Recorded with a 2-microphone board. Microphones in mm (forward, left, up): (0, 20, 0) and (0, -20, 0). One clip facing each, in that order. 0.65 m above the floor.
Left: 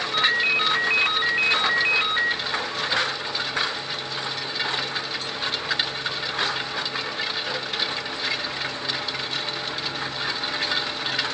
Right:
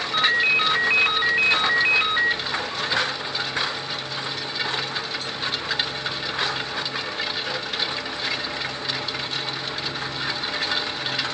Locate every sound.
0.1 s a ringtone: 10° right (ahead or behind), 0.5 m